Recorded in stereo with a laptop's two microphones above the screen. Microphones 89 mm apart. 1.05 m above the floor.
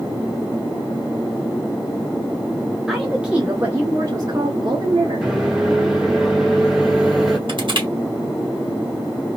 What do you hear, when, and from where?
2.9 s a woman speaking: centre (ahead or behind), 1.5 m; by 5.3 s 70° right (ahead or behind), 1.5 m
5.2 s a microwave: 10° right (ahead or behind), 0.9 m
7.5 s crushing: 65° right (ahead or behind), 1.6 m